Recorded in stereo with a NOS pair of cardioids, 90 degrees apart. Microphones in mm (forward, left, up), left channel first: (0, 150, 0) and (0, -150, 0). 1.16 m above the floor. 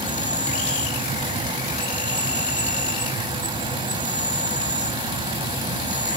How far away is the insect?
About 2.5 m.